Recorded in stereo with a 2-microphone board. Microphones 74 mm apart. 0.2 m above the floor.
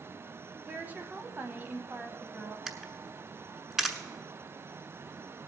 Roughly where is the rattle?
No rattle in this recording.